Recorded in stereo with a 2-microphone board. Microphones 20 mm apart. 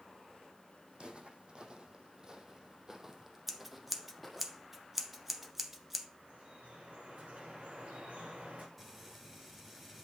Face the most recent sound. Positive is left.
turn(degrees=-10)  # may be behind; listen again after turning